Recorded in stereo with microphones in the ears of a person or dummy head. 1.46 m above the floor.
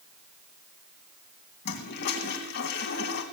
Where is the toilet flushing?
60° left (ahead or behind), 3.5 m.